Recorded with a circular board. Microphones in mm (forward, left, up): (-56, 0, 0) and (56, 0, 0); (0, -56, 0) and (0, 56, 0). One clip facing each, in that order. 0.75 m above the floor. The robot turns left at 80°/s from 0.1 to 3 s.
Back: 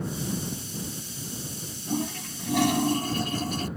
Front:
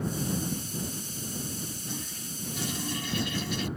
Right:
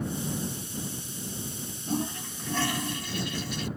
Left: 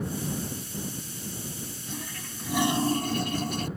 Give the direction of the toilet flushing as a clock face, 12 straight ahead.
5 o'clock.